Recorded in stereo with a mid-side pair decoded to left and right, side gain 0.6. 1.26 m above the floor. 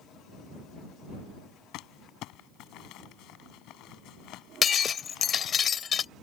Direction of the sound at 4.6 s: 40° left.